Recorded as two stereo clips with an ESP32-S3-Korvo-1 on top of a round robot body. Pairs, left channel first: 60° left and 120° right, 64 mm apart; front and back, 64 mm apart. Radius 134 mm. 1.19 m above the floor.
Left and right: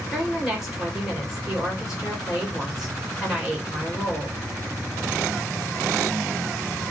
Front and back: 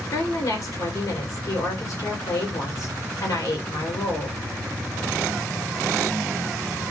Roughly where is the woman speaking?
Ahead right.